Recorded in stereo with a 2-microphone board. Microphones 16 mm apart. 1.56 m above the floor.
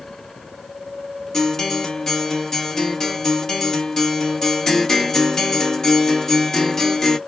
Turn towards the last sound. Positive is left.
turn(degrees=30)  # may be behind; listen again after turning